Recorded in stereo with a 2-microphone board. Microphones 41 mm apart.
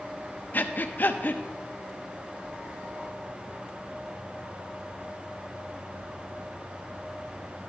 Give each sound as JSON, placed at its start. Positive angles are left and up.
{"t": 0.5, "sound": "breathing", "side_deg": 50, "distance_m": 0.7}